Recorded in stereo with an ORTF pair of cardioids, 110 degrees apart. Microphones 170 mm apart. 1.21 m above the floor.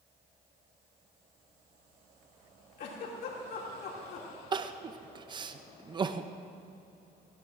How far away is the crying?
About 0.6 m.